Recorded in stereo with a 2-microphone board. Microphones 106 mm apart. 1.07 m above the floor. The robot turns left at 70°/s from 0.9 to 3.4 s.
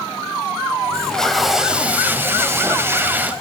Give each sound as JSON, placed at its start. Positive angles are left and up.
{"t": 0.9, "sound": "tape being pulled", "side_deg": 10, "distance_m": 0.9}